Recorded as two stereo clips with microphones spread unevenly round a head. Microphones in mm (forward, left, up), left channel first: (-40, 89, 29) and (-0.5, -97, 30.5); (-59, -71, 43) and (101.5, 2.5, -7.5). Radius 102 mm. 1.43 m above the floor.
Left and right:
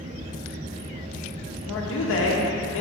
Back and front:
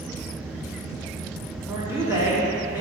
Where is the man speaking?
95° left, 1.0 m.